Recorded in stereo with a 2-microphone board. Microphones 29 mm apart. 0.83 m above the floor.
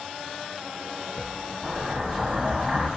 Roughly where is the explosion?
Centre.